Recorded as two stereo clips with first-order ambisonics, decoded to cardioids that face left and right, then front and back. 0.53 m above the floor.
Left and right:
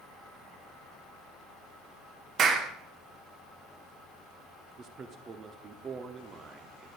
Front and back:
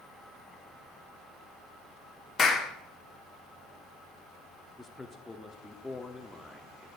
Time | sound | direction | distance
2.4 | a clap | 55° right | 1.0 m
4.8 | a man speaking | 75° right | 0.6 m